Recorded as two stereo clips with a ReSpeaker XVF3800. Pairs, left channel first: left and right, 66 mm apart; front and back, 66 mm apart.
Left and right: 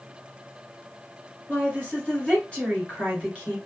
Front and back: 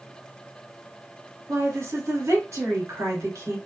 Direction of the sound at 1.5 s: 160° left.